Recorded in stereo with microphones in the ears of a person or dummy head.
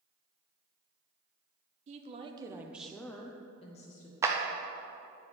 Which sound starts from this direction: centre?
A clap, at 4.2 s.